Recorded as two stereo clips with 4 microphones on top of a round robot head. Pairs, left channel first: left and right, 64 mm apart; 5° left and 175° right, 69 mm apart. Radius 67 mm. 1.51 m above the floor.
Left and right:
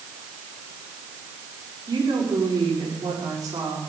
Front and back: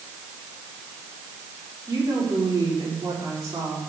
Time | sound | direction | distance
1.9 | a woman speaking | 130° right | 5.5 m